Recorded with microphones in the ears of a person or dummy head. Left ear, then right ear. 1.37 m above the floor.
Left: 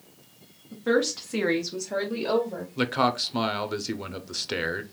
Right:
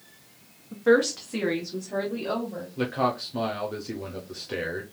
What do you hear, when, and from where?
0.7 s a woman speaking: 25° right (ahead or behind), 0.9 m; by 2.7 s 85° left, 1.4 m
2.8 s a man speaking: 30° left (ahead or behind), 0.5 m